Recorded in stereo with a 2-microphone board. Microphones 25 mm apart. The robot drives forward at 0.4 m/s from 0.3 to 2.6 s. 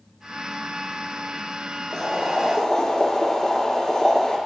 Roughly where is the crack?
I don't hear a crack.